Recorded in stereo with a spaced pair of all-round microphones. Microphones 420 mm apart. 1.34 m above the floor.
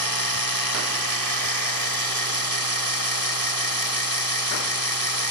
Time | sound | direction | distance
0.0 | a machine running | 55° right (ahead or behind) | ?